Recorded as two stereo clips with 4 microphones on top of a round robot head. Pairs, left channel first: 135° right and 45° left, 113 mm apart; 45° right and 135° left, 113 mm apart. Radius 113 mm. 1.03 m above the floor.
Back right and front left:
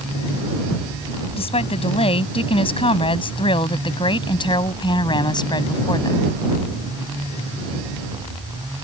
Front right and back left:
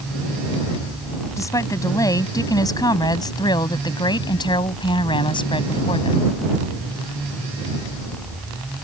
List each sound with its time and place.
1.4 s a woman speaking: 105° right; by 6.3 s 85° right